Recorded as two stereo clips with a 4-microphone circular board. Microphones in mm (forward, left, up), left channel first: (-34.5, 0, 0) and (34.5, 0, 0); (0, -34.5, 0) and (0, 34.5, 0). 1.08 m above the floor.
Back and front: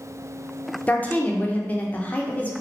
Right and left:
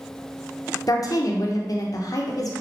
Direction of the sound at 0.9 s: 115° right.